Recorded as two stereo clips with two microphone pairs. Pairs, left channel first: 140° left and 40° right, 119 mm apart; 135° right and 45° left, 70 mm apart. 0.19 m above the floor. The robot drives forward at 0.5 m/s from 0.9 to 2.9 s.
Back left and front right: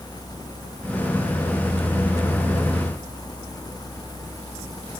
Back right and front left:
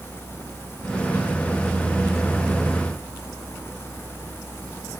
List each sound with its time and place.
Only background noise.